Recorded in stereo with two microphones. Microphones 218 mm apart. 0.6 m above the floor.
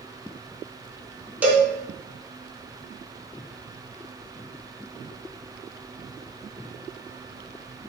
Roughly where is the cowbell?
Centre.